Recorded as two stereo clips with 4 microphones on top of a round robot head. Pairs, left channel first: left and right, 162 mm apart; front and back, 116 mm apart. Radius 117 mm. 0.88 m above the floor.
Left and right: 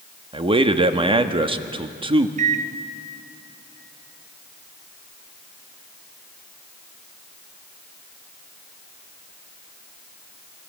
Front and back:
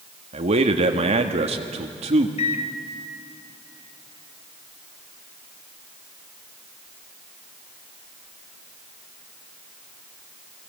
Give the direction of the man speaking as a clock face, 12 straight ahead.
5 o'clock.